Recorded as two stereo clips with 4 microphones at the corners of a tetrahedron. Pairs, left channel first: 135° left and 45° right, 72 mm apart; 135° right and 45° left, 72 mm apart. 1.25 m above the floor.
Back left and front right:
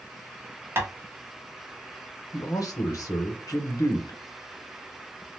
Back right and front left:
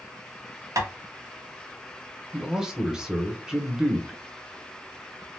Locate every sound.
0.8 s tapping: 10° left, 0.8 m
2.3 s a man speaking: 125° left, 0.8 m